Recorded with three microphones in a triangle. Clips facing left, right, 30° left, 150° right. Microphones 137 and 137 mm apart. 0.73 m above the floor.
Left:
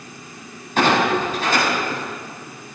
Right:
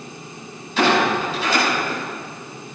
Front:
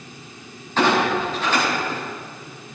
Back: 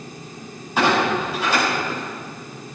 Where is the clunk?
130° left, 6.5 m.